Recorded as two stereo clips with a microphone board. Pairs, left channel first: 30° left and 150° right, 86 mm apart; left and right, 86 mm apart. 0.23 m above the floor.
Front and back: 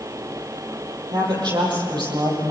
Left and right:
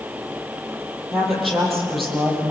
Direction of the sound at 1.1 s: Straight behind.